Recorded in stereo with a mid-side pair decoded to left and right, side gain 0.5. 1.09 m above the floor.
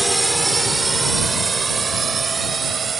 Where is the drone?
15° right; by 3.0 s 40° right.